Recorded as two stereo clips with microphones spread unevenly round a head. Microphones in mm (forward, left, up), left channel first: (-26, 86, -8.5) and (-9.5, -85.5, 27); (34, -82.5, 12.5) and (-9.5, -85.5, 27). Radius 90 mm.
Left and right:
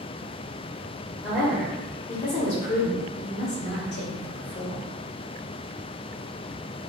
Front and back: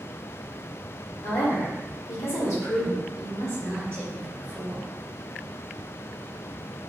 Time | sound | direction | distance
1.2 | a woman speaking | straight ahead | 1.4 m